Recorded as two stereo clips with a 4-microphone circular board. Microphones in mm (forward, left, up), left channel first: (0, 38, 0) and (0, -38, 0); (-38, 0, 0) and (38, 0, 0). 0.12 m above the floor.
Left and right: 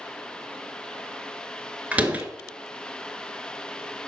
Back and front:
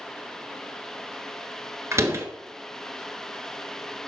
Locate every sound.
1.9 s a door slam: 25° right, 1.6 m